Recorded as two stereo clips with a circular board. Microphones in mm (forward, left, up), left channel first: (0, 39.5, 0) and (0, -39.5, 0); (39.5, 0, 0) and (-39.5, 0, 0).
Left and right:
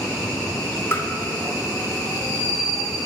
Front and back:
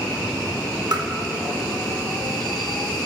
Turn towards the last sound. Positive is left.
turn(degrees=150)